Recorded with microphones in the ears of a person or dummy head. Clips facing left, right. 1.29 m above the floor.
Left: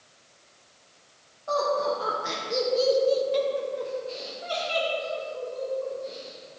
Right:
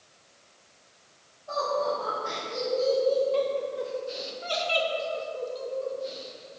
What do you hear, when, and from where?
1.5 s laughter: 75° left (ahead or behind), 1.4 m; by 6.6 s 45° right (ahead or behind), 2.5 m